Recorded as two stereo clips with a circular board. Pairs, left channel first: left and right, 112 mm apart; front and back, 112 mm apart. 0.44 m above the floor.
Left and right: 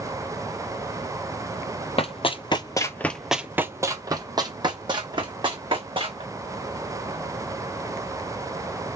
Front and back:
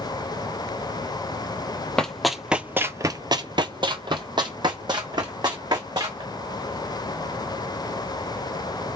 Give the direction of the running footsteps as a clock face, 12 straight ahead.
9 o'clock.